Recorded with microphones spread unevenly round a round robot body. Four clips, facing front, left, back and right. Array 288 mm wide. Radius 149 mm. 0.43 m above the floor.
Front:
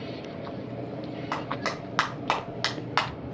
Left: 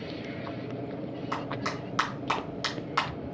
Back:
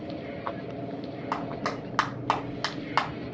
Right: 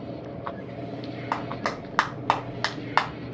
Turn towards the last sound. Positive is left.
turn(degrees=-75)